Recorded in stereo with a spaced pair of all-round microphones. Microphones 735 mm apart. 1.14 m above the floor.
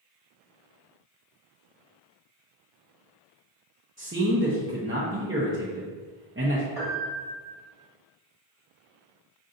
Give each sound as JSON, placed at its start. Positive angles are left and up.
{"t": 4.0, "sound": "a man speaking", "side_deg": -20, "distance_m": 0.6}
{"t": 6.8, "sound": "a piano", "side_deg": -55, "distance_m": 1.3}